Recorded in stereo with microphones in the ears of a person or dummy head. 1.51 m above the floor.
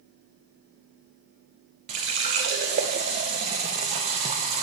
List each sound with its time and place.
1.9 s a running tap: 30° right (ahead or behind), 0.6 m